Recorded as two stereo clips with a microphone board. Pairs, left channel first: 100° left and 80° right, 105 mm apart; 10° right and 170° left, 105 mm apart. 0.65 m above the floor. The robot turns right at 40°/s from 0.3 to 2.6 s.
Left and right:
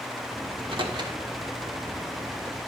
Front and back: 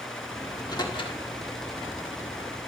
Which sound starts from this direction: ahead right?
A microwave, at 0.5 s.